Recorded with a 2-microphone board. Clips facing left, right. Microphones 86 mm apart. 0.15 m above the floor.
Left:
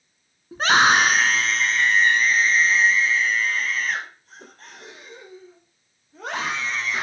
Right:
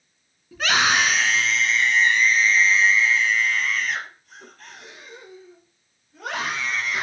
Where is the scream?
35° left (ahead or behind), 1.4 m; by 7.0 s 30° left (ahead or behind), 5.5 m.